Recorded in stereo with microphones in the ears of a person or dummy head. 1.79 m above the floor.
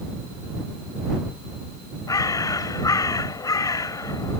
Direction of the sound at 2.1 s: 10° left (ahead or behind).